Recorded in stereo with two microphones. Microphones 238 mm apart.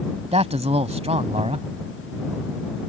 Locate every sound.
0.3 s a man speaking: 25° right (ahead or behind)